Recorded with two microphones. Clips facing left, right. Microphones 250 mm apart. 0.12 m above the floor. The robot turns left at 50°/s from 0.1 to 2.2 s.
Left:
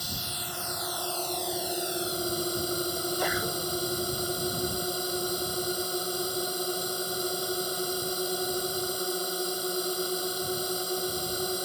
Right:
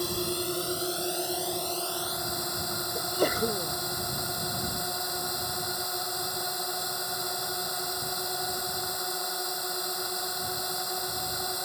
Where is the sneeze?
45° right (ahead or behind).